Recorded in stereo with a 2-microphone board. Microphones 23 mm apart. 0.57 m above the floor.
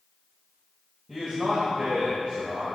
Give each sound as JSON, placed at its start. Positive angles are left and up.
{"t": 1.1, "sound": "a man speaking", "side_deg": -35, "distance_m": 2.0}